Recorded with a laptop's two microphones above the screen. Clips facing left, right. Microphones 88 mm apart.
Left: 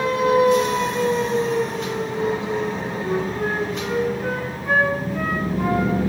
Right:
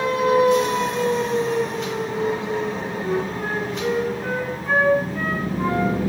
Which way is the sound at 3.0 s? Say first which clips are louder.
Left 1 dB; 5° left (ahead or behind).